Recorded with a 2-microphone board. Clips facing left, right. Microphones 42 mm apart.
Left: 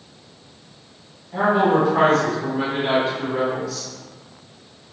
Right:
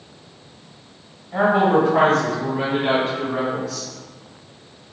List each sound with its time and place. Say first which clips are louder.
1.3 s a woman speaking: right 1 dB; 20° right (ahead or behind), 1.5 m; by 3.9 s 40° right (ahead or behind), 3.5 m